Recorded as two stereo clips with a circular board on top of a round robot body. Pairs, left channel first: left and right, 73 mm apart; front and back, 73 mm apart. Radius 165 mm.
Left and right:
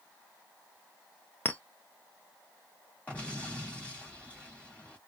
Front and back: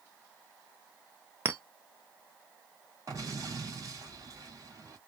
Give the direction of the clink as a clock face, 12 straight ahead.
7 o'clock.